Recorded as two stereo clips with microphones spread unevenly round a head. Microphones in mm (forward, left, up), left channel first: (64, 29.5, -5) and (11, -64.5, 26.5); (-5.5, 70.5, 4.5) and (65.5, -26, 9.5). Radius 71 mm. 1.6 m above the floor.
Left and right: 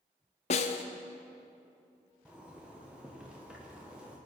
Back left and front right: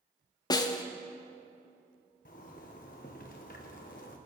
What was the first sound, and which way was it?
A snare drum, 85° left.